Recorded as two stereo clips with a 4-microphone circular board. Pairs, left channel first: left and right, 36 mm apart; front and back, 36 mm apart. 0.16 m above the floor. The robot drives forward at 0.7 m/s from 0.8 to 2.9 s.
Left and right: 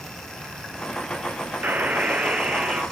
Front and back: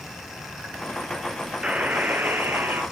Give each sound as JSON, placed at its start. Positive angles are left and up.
{"t": 1.6, "sound": "a buzzer", "azimuth_deg": -120, "distance_m": 0.6}